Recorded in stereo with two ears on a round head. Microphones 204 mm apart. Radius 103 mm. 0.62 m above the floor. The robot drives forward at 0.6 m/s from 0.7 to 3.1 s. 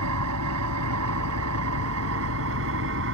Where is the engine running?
85° right; by 3.1 s 65° right (ahead or behind).